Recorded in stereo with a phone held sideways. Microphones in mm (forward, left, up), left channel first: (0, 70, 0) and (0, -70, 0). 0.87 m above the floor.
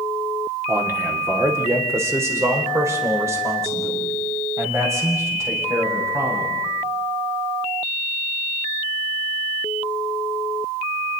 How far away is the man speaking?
About 2.5 m.